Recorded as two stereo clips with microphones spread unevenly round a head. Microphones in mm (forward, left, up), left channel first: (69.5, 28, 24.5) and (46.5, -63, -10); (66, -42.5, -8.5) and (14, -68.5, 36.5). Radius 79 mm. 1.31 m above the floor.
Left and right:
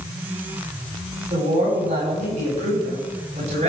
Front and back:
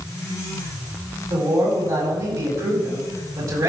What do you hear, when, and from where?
1.3 s a man speaking: 140° right, 10 m